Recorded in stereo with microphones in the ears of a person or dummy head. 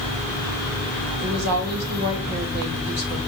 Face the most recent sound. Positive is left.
turn(degrees=-55)  # may be behind; listen again after turning